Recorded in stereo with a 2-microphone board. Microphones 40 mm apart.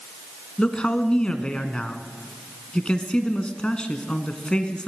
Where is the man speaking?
25° left (ahead or behind), 2 m.